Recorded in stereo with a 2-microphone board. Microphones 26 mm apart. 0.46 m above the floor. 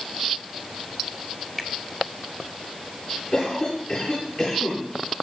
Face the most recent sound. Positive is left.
turn(degrees=40)  # may be behind; listen again after turning